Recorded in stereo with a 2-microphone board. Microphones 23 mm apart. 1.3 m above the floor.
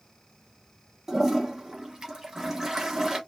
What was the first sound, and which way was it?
A toilet flushing, 25° right (ahead or behind).